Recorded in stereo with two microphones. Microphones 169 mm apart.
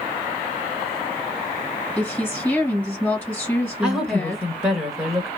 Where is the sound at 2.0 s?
15° left (ahead or behind), 2.5 m.